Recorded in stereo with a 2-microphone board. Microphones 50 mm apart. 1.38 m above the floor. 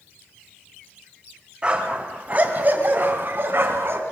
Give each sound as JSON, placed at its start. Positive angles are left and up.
{"t": 1.6, "sound": "a dog barking", "side_deg": -20, "distance_m": 3.5}